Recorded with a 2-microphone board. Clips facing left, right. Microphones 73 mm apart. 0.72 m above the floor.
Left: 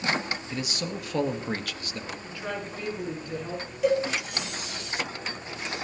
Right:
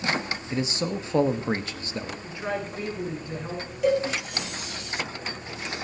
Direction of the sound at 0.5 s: 30° right (ahead or behind).